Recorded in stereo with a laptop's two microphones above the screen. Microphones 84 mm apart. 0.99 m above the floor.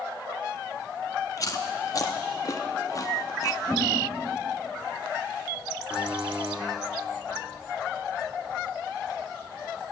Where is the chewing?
45° left (ahead or behind), 0.9 m.